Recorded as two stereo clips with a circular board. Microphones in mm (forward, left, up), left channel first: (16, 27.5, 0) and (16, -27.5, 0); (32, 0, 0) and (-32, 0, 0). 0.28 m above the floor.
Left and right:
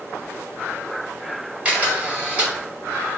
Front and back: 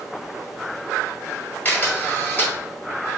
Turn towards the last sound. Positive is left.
turn(degrees=-40)